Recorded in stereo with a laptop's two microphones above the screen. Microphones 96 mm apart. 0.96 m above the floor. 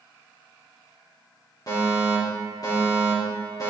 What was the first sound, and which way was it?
A fire alarm, 45° left (ahead or behind).